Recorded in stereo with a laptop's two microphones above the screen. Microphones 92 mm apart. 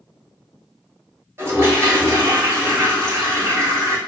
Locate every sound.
1.4 s a toilet flushing: 30° right (ahead or behind), 0.8 m